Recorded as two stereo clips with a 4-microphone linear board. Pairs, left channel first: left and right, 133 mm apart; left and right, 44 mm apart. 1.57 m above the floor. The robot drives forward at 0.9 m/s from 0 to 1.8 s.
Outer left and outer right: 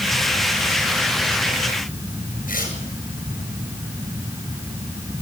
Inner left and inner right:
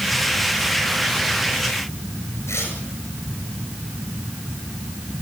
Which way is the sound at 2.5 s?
80° left.